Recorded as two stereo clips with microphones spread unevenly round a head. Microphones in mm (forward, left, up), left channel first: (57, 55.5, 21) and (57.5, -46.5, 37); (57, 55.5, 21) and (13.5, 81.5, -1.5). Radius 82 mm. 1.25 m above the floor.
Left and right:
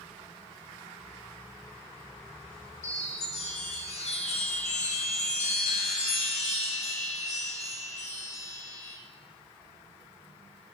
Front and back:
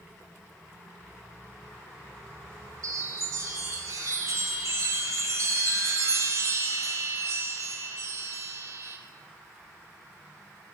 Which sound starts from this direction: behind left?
A chime, at 2.8 s.